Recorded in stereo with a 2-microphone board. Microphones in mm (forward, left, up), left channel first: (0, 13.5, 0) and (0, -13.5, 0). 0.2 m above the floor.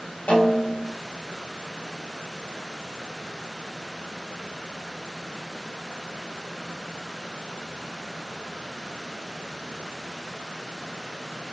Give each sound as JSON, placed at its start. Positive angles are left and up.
{"t": 0.3, "sound": "a snare drum", "side_deg": 65, "distance_m": 7.0}